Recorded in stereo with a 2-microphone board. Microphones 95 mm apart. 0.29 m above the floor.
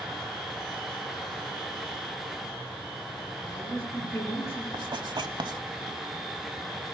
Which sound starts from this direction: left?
A woman speaking, at 3.4 s.